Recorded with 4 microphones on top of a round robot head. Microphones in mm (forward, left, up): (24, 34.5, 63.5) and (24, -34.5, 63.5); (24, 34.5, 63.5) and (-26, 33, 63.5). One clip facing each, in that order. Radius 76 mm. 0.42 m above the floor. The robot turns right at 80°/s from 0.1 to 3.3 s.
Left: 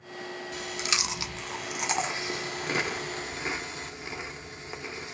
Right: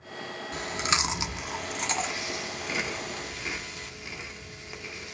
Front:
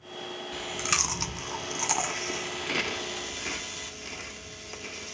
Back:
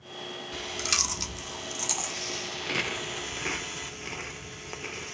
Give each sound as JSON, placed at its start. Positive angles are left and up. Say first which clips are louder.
{"t": 0.5, "sound": "chewing", "louder": "right 5 dB, front 2 dB", "azimuth_deg": -85, "distance_m": 1.1}